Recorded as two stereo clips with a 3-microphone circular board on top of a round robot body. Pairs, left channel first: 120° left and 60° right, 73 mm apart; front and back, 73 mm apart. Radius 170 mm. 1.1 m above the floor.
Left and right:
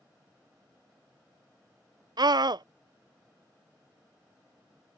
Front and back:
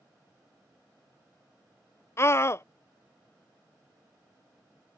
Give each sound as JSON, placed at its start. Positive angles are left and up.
{"t": 2.2, "sound": "a scream", "azimuth_deg": -50}